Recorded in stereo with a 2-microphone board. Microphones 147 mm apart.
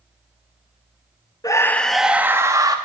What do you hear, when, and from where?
1.4 s a scream: 25° left (ahead or behind), 0.6 m; by 2.8 s 25° right (ahead or behind), 1.0 m